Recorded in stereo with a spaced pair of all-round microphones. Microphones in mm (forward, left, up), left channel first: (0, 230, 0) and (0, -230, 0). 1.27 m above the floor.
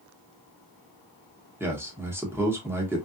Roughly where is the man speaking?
Centre.